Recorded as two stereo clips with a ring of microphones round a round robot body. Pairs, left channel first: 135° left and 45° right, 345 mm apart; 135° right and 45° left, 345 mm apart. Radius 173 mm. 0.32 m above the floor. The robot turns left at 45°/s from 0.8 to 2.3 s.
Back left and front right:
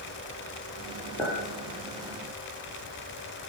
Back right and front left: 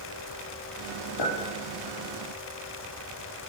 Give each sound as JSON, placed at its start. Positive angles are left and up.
{"t": 1.2, "sound": "a clink", "azimuth_deg": -140, "distance_m": 4.0}